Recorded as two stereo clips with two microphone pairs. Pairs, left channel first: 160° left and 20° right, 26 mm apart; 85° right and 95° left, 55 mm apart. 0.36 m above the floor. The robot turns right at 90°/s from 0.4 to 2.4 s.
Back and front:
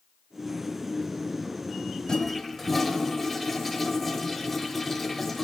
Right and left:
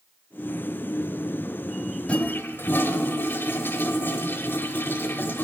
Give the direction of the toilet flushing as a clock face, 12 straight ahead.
5 o'clock.